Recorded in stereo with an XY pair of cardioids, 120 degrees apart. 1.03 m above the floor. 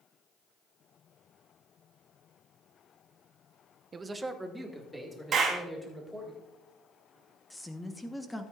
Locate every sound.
3.9 s a man speaking: 30° right, 0.8 m; by 6.3 s 5° left, 4 m
5.3 s a clap: 40° right, 3 m
7.5 s a woman speaking: 10° left, 1.2 m